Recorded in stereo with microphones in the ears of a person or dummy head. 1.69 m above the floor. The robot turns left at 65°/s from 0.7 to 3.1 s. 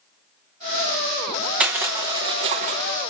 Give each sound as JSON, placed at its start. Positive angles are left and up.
{"t": 1.6, "sound": "crushing", "side_deg": -10, "distance_m": 0.9}